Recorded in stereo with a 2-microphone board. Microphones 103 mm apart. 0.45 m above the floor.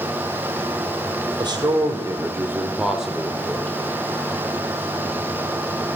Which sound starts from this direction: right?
A man speaking, at 1.4 s.